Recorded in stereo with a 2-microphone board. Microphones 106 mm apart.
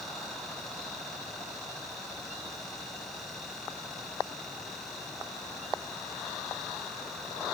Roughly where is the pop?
No pop in this recording.